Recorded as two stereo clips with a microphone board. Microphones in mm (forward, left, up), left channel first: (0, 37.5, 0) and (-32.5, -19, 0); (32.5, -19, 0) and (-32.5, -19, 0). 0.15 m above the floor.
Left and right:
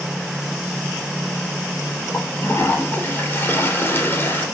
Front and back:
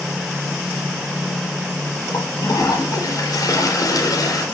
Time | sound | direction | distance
2.1 | a toilet flushing | 5° left | 3.5 m